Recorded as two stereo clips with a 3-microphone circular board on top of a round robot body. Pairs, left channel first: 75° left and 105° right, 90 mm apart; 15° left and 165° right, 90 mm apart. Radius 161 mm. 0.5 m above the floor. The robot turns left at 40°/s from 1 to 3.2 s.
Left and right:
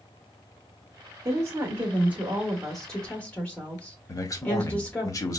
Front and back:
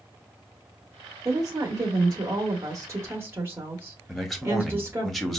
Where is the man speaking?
105° left, 1.2 m.